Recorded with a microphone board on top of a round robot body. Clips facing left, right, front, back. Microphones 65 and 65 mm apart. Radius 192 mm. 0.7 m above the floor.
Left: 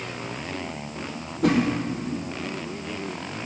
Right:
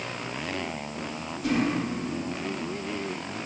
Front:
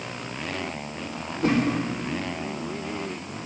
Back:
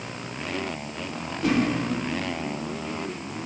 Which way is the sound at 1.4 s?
55° left.